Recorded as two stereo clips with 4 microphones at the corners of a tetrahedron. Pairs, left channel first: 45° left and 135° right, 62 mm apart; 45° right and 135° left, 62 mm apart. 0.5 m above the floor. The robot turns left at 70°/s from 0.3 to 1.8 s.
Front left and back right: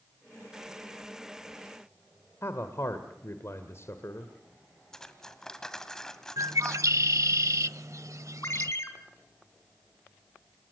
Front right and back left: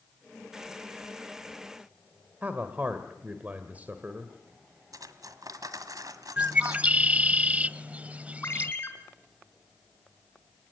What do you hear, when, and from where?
2.4 s a man speaking: 75° left, 1.8 m
4.9 s cutlery clinking: 125° left, 1.8 m
6.4 s a bird: 160° right, 0.6 m
8.4 s a ringtone: 5° left, 3 m